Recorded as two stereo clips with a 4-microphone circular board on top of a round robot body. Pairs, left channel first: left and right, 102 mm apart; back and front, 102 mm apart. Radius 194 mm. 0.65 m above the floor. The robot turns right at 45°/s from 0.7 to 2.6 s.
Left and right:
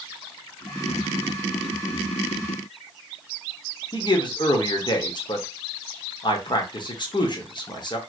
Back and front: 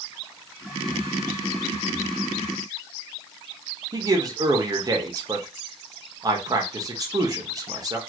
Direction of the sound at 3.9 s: 50° left.